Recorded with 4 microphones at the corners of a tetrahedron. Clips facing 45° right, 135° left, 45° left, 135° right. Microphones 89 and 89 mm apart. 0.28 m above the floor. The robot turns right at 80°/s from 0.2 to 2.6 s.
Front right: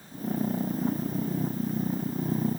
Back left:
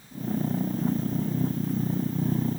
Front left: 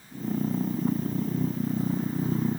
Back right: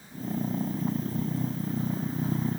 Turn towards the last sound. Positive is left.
No sound to turn to.